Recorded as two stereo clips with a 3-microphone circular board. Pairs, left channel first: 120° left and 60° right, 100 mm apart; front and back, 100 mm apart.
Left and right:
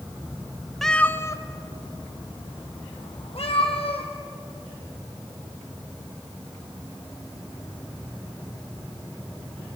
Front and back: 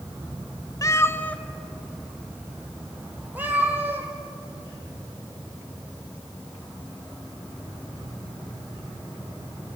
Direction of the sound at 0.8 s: 35° left.